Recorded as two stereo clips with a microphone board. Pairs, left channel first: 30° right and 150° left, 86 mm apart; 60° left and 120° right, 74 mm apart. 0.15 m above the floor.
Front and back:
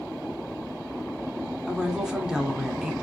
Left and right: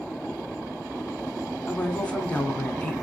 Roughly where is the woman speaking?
Left.